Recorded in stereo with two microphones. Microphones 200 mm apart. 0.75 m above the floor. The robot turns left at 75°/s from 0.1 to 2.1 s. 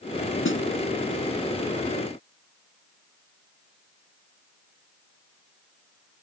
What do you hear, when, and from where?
0.5 s a snare drum: 85° left; by 0.7 s 70° left (ahead or behind)